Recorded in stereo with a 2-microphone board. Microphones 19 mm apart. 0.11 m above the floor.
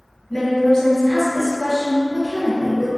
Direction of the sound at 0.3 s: 20° left (ahead or behind).